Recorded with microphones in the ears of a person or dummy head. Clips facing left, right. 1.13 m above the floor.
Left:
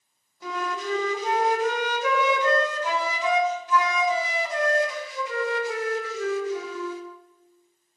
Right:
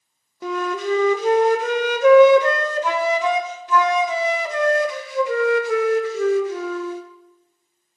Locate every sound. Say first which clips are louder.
0.4 s a flute: right 7 dB; 60° right (ahead or behind), 0.5 m